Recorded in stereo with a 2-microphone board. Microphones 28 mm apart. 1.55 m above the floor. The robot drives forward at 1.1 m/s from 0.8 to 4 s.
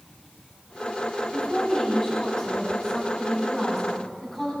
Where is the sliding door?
I don't hear a sliding door.